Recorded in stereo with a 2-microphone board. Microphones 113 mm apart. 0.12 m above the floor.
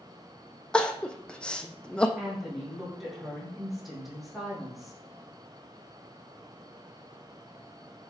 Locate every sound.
0.7 s crying: 10° left (ahead or behind), 1.0 m
2.2 s a woman speaking: centre (ahead or behind), 5 m